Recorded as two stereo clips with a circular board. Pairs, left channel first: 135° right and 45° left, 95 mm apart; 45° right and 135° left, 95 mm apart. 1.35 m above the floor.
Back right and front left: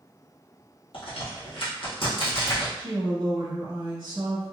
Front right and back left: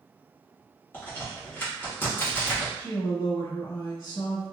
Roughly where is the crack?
Behind right.